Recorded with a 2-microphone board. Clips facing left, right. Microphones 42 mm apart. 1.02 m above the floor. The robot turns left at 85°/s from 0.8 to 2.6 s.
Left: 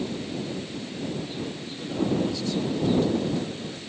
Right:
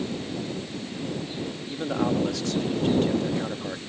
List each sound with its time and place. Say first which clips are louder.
1.7 s a man speaking: right 2 dB; 40° right; by 3.8 s 115° right